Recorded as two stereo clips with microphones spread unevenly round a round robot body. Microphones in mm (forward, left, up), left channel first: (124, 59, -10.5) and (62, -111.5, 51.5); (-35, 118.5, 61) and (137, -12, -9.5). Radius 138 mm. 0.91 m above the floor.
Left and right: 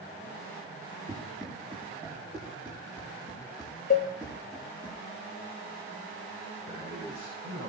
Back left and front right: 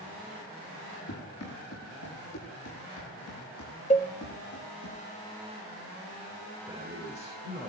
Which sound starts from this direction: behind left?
Running footsteps, at 1.1 s.